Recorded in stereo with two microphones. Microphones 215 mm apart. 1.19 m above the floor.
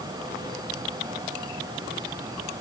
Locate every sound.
Only background noise.